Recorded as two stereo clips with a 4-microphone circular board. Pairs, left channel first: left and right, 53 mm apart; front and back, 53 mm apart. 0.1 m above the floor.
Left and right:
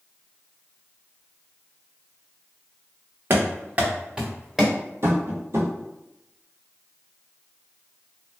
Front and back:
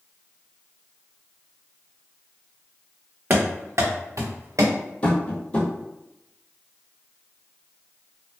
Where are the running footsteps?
130° right, 0.7 m; by 4.8 s straight behind, 1.0 m.